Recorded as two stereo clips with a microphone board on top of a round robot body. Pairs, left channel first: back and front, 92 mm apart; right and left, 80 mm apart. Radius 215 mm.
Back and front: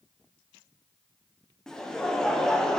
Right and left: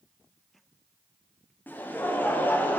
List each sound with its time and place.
1.7 s laughter: 105° right, 0.8 m